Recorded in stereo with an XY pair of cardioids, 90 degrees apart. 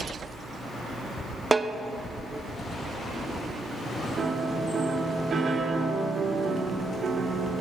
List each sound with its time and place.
1.5 s a snare drum: 25° right, 0.7 m
4.2 s a piano: 55° right, 2 m